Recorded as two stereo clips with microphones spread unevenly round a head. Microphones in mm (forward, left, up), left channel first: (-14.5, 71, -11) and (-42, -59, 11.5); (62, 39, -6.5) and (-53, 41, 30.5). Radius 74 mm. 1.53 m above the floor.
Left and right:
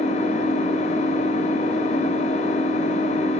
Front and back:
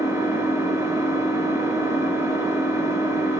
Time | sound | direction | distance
0.0 | an engine running | 115° left | 7 m